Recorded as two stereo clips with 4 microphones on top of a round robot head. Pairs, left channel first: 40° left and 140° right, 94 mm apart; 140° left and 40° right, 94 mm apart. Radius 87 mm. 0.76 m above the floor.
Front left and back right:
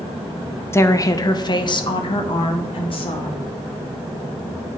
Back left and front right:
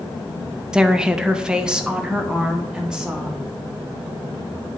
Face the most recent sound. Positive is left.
turn(degrees=40)